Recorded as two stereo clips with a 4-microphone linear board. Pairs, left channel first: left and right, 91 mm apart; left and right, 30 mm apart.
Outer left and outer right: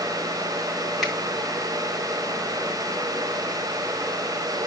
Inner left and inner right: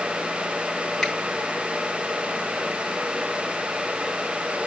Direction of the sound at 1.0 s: 5° right (ahead or behind).